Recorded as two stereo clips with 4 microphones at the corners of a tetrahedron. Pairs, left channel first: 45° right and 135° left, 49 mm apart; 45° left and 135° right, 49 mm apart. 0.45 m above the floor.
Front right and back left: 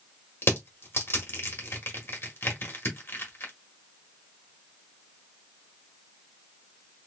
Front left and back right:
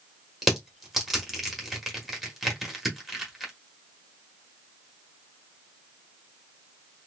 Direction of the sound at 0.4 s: 50° right.